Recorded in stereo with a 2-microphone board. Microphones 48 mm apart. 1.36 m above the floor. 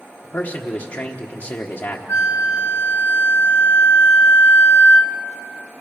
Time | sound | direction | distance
0.2 | a man speaking | 60° left (ahead or behind) | 1.2 m
2.1 | a flute | 65° left (ahead or behind) | 1.0 m